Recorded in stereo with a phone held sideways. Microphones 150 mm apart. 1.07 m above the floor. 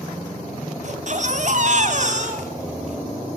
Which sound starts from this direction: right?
A baby crying, at 0.8 s.